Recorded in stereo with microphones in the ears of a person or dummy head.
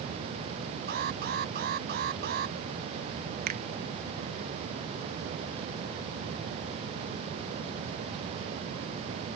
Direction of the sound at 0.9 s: 60° right (ahead or behind).